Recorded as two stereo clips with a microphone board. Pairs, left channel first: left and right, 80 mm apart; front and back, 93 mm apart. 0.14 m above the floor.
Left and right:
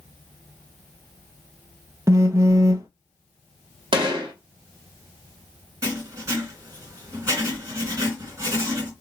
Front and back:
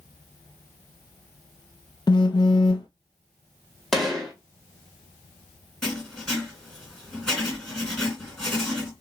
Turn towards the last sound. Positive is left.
turn(degrees=-85)